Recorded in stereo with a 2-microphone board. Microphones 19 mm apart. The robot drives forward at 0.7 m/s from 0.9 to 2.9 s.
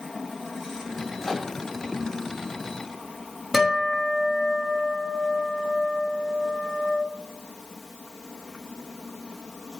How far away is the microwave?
About 3 m.